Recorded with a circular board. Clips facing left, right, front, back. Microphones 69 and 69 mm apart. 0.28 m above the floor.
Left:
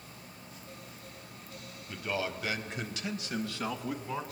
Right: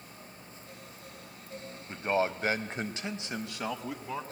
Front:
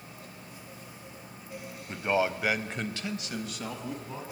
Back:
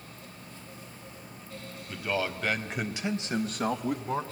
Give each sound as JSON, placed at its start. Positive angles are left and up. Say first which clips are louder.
{"t": 1.9, "sound": "a man speaking", "louder": "right 6 dB, front 4 dB", "azimuth_deg": -45, "distance_m": 1.8}